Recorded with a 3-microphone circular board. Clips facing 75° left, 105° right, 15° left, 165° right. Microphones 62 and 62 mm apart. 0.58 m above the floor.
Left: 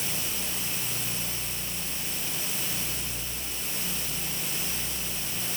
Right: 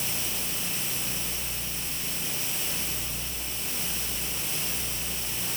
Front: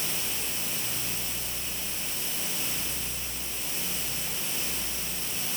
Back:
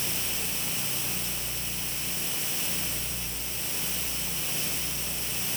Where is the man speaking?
No man speaking in this recording.